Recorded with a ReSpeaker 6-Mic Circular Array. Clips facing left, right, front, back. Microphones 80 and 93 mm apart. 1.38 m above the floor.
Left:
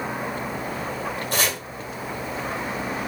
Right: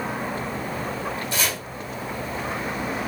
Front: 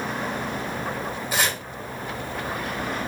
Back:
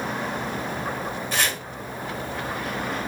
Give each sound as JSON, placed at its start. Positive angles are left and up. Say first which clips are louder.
{"t": 1.3, "sound": "chopping", "louder": "left 4 dB, front 2 dB", "azimuth_deg": 75, "distance_m": 1.7}